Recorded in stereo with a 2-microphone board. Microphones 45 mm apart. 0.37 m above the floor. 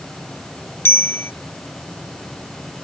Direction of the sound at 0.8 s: 55° left (ahead or behind).